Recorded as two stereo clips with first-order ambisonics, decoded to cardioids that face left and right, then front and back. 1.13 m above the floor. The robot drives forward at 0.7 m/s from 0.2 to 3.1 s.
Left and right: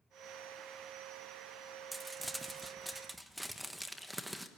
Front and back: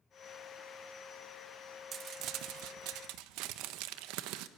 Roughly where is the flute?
I don't hear a flute.